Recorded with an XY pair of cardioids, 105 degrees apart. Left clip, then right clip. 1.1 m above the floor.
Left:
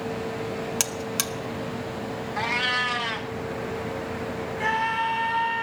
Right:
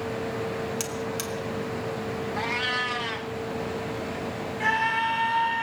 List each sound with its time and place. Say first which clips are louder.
0.8 s a buzzer: left 3 dB; 55° left, 1.0 m
2.4 s a cat meowing: left 3 dB; 20° left, 1.0 m
4.6 s a scream: right 1 dB; straight ahead, 6.5 m